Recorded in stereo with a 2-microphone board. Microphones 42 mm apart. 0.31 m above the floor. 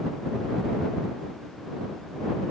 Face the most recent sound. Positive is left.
No sound to turn to.